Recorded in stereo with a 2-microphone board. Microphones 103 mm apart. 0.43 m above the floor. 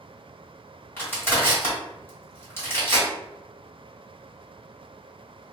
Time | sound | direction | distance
1.0 | crushing | 25° left (ahead or behind) | 1.7 m